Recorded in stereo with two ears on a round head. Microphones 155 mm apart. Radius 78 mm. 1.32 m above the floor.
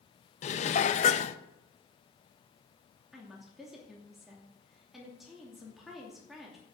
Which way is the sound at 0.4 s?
40° left (ahead or behind).